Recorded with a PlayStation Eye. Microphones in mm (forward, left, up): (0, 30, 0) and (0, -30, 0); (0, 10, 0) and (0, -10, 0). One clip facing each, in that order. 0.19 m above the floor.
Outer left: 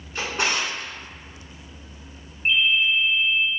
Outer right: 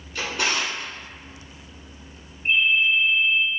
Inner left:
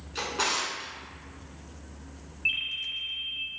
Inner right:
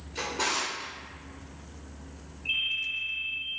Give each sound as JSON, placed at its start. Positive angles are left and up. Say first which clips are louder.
{"t": 0.1, "sound": "a drawer", "louder": "even, inner left 1 dB", "side_deg": 30, "distance_m": 1.2}
{"t": 2.5, "sound": "a ringtone", "louder": "outer right 1 dB, even", "side_deg": 70, "distance_m": 1.6}